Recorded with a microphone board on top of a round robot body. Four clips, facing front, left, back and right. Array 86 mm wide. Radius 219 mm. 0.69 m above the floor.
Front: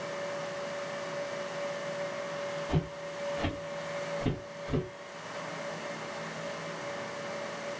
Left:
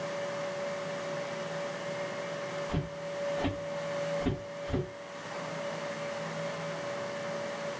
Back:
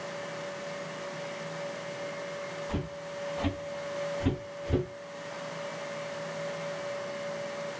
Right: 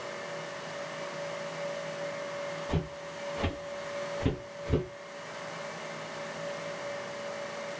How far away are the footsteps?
About 1.3 m.